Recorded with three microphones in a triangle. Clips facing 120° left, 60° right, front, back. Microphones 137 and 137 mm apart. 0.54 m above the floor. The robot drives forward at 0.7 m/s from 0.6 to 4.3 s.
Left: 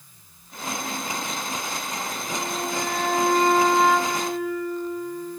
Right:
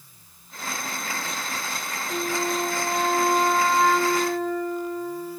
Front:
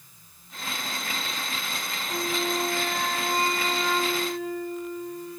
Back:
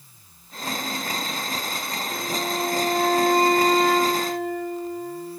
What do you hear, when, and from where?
2.1 s a flute: 80° right, 0.6 m; by 5.4 s 160° right, 1.6 m